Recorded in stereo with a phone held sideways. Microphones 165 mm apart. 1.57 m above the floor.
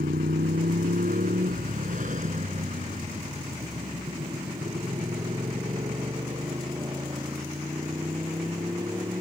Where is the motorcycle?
80° right; by 9.2 s 20° right (ahead or behind).